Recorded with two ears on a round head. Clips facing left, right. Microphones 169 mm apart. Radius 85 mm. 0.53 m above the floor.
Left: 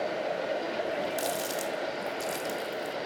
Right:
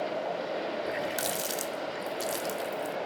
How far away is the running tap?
About 0.5 m.